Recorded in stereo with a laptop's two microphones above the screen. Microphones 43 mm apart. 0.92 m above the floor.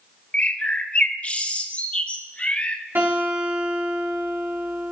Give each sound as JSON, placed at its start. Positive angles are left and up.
{"t": 0.3, "sound": "a bird", "side_deg": 30, "distance_m": 0.7}
{"t": 3.0, "sound": "a guitar", "side_deg": -55, "distance_m": 5.0}